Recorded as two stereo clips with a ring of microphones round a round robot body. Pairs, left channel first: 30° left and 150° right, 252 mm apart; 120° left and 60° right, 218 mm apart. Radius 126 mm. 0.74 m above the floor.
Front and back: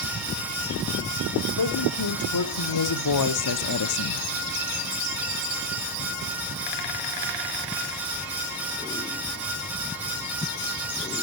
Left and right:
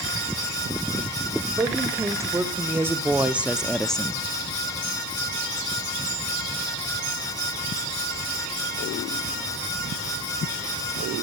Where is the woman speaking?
15° left, 2.5 m; by 4.2 s 40° left, 0.8 m.